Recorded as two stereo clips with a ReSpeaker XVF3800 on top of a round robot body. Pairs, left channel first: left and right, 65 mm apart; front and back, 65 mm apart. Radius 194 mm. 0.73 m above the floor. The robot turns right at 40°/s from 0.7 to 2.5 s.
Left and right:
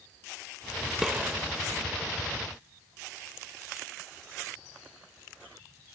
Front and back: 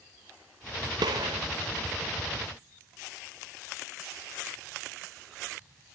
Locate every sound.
1.0 s a gunshot: 175° right, 0.6 m; by 1.4 s 160° right, 0.6 m